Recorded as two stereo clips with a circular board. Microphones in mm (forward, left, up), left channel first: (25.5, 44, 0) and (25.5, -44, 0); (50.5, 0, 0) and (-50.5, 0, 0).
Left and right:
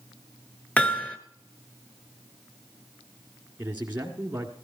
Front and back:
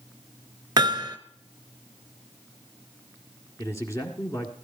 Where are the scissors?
No scissors in this recording.